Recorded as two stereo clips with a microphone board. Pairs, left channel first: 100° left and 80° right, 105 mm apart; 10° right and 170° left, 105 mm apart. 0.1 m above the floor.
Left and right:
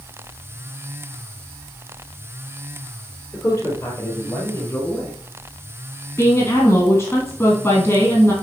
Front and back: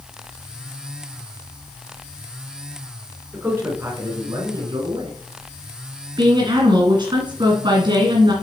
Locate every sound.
3.3 s a man speaking: 110° left, 1.7 m; by 5.2 s 155° left, 2.5 m
6.2 s a woman speaking: 155° left, 2 m